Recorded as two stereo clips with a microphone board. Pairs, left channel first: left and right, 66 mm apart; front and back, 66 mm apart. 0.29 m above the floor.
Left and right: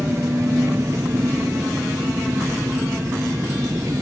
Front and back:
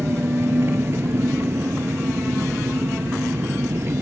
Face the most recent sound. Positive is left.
turn(degrees=-130)